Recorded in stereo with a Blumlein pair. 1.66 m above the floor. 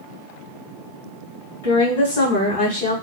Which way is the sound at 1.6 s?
55° left.